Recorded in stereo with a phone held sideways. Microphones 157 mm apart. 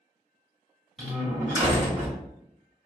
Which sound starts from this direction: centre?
A door slam, at 1.0 s.